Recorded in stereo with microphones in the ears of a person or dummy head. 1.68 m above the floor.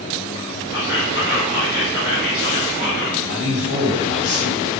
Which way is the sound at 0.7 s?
60° left (ahead or behind).